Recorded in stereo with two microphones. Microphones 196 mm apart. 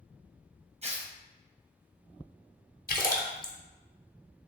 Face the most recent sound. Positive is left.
turn(degrees=50)  # may be behind; listen again after turning